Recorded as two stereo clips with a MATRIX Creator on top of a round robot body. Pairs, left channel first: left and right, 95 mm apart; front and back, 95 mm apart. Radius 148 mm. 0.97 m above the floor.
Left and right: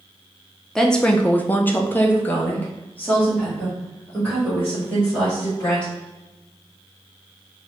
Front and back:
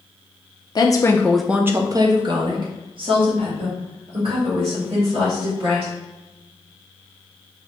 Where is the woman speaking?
5° left, 0.6 m; by 5.9 s 165° left, 2.5 m.